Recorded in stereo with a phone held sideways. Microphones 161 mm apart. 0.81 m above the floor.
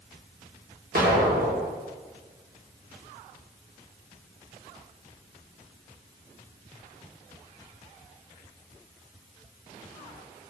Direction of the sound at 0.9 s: 75° right (ahead or behind).